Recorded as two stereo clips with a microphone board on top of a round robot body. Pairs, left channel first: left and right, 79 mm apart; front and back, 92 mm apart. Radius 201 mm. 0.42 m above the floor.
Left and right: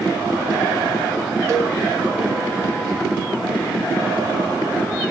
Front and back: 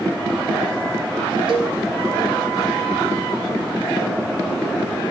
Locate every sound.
1.5 s a cowbell: 145° right, 0.6 m